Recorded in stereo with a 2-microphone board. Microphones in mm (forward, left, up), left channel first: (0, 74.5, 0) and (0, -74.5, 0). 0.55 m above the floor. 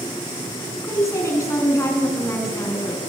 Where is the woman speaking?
20° left (ahead or behind), 6.5 m.